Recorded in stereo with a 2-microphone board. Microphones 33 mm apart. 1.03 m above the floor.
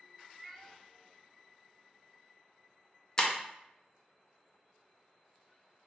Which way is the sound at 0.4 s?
Centre (ahead or behind).